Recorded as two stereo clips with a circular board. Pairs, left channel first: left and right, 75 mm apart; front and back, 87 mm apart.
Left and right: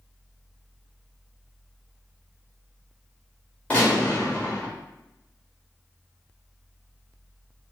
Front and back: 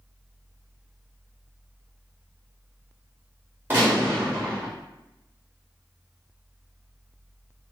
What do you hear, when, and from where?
3.7 s a gunshot: 140° left, 1.3 m